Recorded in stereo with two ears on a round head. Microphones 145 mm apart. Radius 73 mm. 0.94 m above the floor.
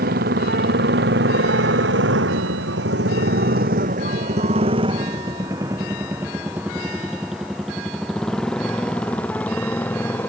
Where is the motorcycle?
65° right (ahead or behind); by 10.3 s 10° left (ahead or behind).